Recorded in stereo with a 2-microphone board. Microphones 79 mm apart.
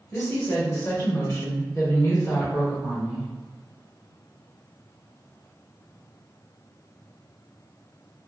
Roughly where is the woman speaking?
Left.